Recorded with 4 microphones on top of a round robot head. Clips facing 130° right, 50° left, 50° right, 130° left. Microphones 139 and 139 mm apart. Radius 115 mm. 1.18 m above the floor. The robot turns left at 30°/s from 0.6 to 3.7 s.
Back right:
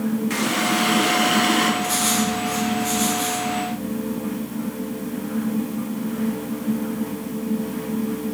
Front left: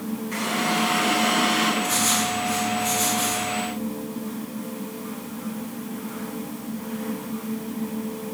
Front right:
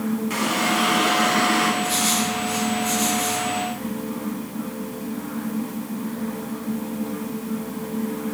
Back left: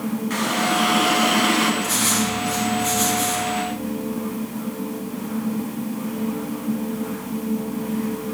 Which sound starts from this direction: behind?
Writing, at 1.8 s.